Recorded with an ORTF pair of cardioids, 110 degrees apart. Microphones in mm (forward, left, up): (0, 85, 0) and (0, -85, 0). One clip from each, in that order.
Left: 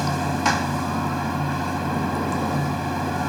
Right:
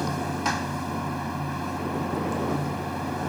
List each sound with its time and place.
0.0 s running water: 35° left